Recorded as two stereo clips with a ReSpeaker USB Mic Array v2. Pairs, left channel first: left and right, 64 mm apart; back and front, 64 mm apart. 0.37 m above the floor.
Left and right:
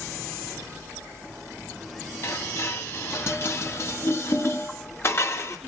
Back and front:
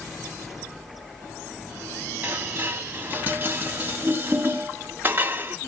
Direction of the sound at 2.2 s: 50° left.